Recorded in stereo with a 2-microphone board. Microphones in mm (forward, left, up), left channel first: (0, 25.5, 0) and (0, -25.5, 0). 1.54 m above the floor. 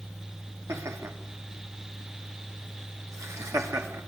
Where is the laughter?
70° right (ahead or behind), 3 m.